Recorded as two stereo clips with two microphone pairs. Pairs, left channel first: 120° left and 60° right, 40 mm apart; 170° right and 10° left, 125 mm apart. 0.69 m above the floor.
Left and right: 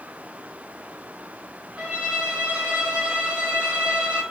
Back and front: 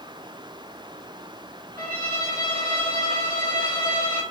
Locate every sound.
1.8 s a violin: 130° right, 1.5 m